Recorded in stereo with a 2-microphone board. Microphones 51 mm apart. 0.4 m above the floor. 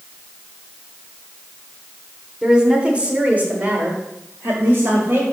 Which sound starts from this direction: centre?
A woman speaking, at 2.4 s.